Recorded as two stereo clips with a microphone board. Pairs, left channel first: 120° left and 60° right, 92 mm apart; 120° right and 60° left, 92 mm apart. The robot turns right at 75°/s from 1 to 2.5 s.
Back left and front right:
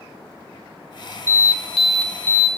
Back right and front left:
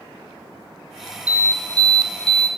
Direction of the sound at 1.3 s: 10° right.